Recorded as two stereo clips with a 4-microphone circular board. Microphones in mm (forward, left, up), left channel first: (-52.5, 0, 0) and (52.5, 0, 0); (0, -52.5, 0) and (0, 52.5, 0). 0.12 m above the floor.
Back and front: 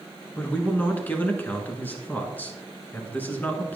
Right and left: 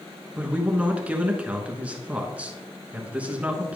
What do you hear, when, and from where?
0.3 s a man speaking: 145° left, 1.1 m